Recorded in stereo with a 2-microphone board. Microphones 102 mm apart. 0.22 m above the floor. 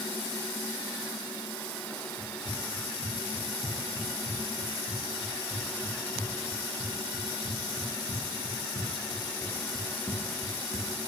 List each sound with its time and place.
2.2 s running footsteps: 90° left, 8.5 m; by 11.1 s 15° left (ahead or behind), 2.0 m